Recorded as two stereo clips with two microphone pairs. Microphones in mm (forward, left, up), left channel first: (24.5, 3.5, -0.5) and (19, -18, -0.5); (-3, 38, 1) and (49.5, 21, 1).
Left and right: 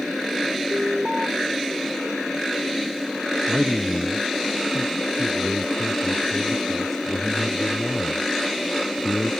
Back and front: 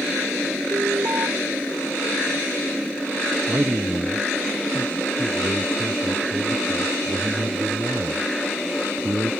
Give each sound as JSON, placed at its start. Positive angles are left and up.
{"t": 0.7, "sound": "an alarm", "azimuth_deg": -45}
{"t": 3.5, "sound": "a man speaking", "azimuth_deg": 5}